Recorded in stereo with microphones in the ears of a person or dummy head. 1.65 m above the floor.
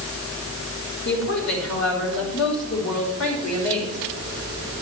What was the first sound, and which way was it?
A woman speaking, 85° left.